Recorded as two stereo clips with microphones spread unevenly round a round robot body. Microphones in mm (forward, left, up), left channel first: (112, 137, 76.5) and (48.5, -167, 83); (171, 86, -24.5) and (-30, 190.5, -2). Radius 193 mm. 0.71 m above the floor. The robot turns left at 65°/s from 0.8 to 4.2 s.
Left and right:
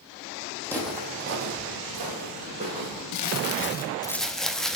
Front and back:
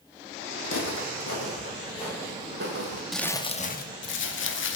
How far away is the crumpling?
About 0.7 m.